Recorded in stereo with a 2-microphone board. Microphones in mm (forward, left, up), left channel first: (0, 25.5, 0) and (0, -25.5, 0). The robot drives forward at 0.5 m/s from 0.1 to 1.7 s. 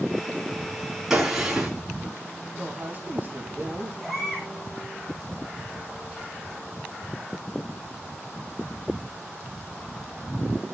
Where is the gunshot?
10° right (ahead or behind), 3.5 m.